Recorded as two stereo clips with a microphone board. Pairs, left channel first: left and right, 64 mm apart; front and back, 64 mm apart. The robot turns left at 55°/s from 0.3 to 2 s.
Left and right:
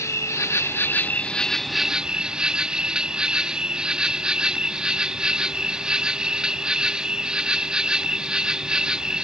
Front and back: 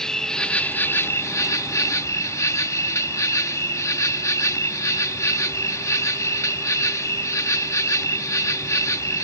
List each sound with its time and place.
0.0 s an insect: 80° left; by 9.2 s 15° right